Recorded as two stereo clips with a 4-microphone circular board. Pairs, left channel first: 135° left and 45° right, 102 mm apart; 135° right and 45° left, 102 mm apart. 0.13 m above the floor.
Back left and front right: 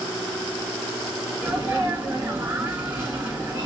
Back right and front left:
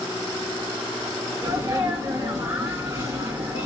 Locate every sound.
1.4 s a sneeze: 10° left, 2.0 m